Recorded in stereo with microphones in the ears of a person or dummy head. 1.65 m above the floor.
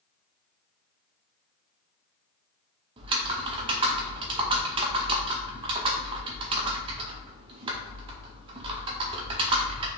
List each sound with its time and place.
3.0 s typing on a keyboard: 25° right (ahead or behind), 0.6 m